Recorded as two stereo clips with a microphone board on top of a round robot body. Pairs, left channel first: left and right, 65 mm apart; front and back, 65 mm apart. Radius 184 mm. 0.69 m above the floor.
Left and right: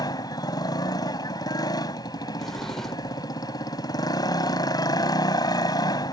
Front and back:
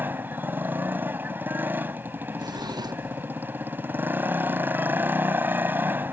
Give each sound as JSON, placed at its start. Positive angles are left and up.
{"t": 0.0, "sound": "a motorcycle", "azimuth_deg": 115}
{"t": 2.4, "sound": "a drawer", "azimuth_deg": 175}